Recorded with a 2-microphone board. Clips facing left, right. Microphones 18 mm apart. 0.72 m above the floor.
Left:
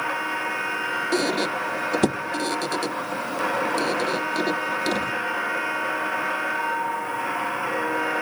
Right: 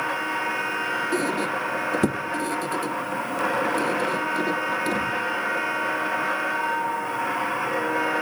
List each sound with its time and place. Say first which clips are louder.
1.1 s a squeak: left 1 dB; 45° left (ahead or behind), 0.6 m